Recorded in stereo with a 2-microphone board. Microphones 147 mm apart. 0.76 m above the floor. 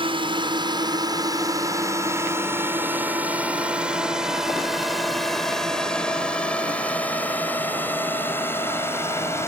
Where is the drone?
35° right (ahead or behind); by 9.5 s 20° left (ahead or behind).